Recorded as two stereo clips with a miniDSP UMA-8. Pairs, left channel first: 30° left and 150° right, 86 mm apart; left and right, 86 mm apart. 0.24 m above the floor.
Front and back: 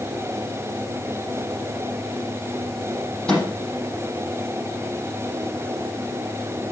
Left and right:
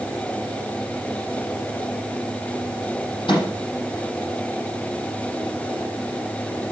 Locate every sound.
3.3 s a microwave: 110° left, 6 m